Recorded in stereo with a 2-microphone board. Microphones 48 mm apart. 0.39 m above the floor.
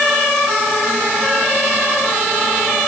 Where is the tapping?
I don't hear tapping.